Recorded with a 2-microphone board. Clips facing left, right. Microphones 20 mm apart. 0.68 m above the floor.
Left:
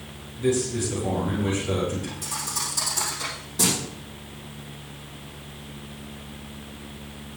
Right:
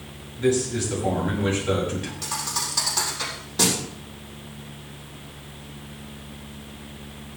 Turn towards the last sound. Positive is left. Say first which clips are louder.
# right 4 dB
turn(degrees=-35)  # may be behind; listen again after turning